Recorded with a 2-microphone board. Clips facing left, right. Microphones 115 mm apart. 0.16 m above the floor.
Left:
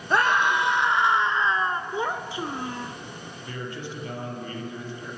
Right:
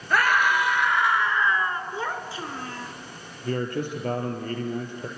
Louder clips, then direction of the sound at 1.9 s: Left 3 dB; 15° left (ahead or behind).